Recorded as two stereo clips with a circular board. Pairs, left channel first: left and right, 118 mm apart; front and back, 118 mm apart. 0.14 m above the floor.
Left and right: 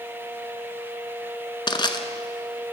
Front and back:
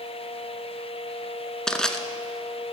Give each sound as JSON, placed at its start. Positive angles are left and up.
{"t": 1.7, "sound": "crushing", "azimuth_deg": 80, "distance_m": 0.8}